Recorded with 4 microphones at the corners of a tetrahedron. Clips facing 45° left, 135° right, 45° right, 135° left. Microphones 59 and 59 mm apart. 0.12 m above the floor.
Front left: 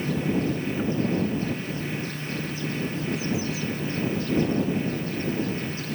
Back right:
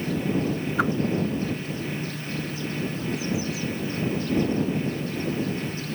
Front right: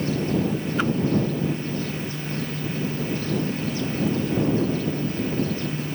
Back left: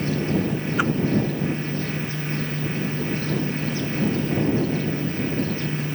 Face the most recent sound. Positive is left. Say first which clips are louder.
# back right 6 dB, back left 2 dB
turn(degrees=-150)